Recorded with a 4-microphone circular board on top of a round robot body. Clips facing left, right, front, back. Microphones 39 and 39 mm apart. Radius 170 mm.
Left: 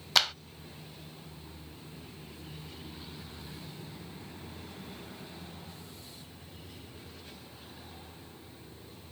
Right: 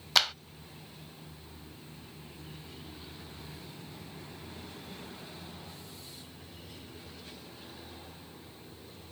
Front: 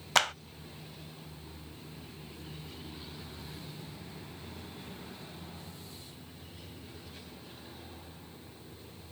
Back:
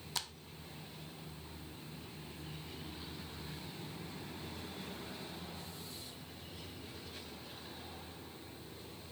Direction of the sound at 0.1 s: Straight ahead.